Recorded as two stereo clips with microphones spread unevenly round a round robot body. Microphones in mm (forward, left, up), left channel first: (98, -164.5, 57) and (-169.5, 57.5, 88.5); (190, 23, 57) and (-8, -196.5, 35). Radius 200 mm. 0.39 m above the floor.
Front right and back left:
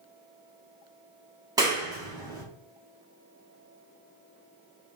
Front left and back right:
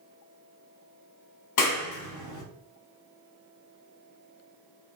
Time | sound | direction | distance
1.6 | a clap | 60° left | 1.2 m